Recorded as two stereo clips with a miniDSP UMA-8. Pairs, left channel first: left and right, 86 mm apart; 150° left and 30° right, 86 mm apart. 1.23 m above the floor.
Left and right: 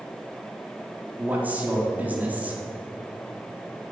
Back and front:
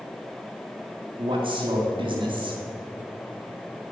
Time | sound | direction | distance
1.2 | a man speaking | 20° right | 3.5 m